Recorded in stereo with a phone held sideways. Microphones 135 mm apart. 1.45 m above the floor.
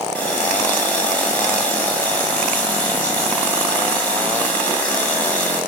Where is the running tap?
15° left (ahead or behind), 5.5 m.